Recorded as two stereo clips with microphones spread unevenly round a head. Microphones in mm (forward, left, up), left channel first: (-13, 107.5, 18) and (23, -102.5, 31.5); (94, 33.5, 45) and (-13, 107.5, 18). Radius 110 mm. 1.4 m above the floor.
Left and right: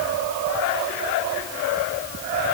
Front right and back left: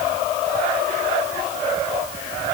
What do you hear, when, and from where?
Only background noise.